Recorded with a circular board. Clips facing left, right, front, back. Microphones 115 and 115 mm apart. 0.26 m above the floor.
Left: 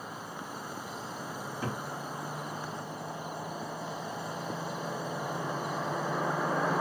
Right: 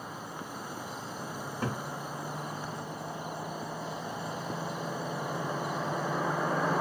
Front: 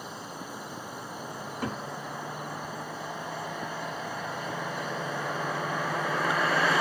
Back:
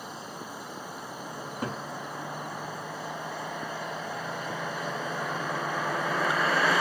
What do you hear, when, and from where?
1.4 s a cupboard door: 110° right, 2 m